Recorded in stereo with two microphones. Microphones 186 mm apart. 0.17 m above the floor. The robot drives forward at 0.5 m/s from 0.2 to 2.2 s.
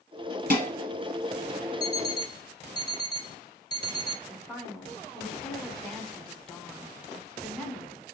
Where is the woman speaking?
5° left (ahead or behind), 1.1 m.